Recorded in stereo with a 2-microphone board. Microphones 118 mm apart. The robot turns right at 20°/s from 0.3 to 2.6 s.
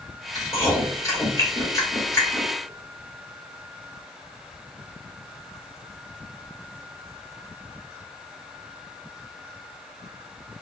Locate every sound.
0.3 s chewing: 30° left (ahead or behind), 1.5 m; by 2.5 s 25° left (ahead or behind), 1.5 m